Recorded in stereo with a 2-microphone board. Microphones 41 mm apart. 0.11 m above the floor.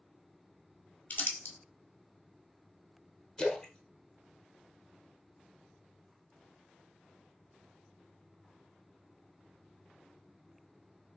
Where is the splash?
25° left (ahead or behind), 0.6 m.